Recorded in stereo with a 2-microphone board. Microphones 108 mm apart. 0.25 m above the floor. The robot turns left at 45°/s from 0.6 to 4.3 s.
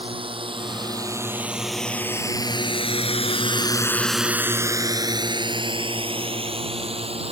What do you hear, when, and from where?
0.0 s a drone: 60° right (ahead or behind); by 7.3 s 70° right (ahead or behind)